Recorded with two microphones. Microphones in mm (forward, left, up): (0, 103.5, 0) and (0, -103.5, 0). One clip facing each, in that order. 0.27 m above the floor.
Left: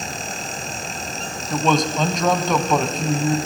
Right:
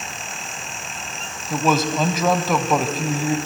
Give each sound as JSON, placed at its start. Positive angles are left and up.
{"t": 1.5, "sound": "a man speaking", "side_deg": -5, "distance_m": 1.4}